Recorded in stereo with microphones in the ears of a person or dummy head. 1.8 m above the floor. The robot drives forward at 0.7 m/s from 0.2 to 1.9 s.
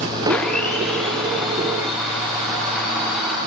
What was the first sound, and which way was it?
A blender, 5° left (ahead or behind).